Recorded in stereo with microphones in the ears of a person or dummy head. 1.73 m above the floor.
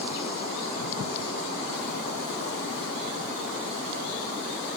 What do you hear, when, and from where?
Only background noise.